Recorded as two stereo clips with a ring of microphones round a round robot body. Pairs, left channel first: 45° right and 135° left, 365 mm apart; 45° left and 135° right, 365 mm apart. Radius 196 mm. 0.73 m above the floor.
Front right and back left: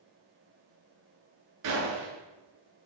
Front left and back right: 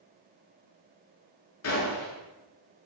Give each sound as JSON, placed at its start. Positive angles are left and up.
{"t": 1.6, "sound": "a gunshot", "azimuth_deg": 95, "distance_m": 8.0}